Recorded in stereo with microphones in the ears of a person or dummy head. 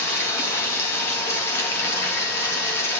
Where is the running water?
10° left (ahead or behind), 2.5 m.